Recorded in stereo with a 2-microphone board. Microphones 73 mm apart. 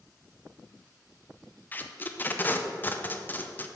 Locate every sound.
1.7 s tape being pulled: 25° left (ahead or behind), 0.5 m